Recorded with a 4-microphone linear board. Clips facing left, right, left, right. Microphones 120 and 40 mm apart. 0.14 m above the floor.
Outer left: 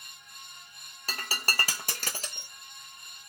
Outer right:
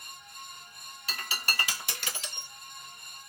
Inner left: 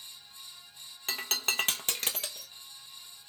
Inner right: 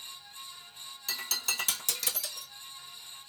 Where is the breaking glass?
45° left (ahead or behind), 0.8 m.